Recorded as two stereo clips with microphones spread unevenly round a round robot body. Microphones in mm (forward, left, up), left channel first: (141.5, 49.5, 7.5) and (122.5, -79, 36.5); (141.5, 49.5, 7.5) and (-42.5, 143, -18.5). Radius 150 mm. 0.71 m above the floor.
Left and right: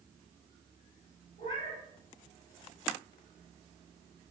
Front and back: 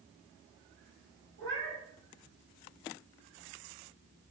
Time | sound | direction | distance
1.4 | a cat meowing | 150° left | 2.0 m